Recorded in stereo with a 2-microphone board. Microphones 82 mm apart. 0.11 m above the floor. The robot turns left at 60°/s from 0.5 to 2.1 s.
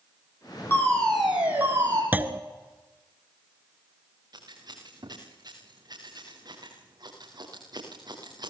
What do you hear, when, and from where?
0.7 s a fire alarm: 30° left, 7.5 m; by 2.0 s 50° right, 7.5 m
2.1 s a clunk: 20° right (ahead or behind), 1.3 m
4.3 s scissors: 55° right (ahead or behind), 8.5 m